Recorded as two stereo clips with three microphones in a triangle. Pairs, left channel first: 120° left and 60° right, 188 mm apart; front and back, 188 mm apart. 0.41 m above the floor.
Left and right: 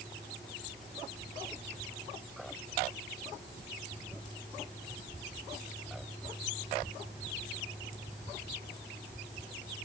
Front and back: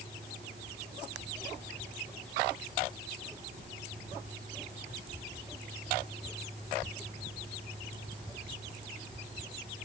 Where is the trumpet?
I don't hear a trumpet.